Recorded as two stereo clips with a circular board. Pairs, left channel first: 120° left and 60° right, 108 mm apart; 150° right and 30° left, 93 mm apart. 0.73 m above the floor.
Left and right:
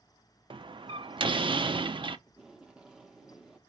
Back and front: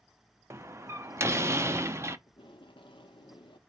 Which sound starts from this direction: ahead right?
A door slam, at 0.5 s.